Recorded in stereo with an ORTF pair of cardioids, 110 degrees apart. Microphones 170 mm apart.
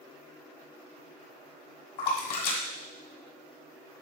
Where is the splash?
55° left, 1.2 m.